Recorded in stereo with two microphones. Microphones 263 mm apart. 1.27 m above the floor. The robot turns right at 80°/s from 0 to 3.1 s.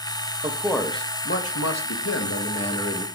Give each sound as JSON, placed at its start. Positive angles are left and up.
{"t": 0.4, "sound": "a man speaking", "azimuth_deg": -25, "distance_m": 1.0}